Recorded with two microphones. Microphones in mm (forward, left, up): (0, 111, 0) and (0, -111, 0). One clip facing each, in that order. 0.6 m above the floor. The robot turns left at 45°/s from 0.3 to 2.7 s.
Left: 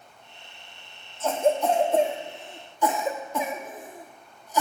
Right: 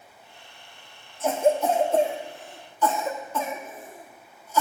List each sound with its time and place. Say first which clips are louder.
1.2 s a cough: right 1 dB; 15° right (ahead or behind), 0.6 m; by 4.6 s 15° left (ahead or behind), 0.6 m